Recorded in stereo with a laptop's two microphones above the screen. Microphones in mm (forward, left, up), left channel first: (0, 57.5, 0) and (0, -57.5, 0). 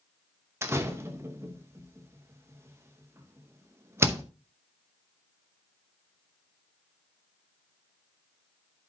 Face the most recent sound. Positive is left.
turn(degrees=-20)  # may be behind; listen again after turning